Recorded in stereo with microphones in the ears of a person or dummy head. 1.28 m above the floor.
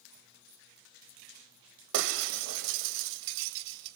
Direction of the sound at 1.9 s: 65° right (ahead or behind).